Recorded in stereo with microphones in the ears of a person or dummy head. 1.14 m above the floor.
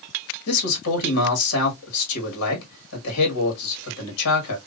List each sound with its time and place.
0.5 s a man speaking: 90° left, 1.6 m